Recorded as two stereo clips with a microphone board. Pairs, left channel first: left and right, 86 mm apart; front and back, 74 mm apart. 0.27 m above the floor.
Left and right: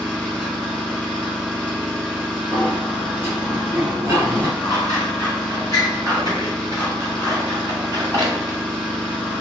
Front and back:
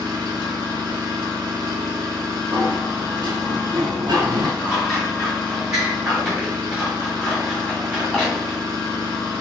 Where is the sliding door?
155° right, 1.0 m.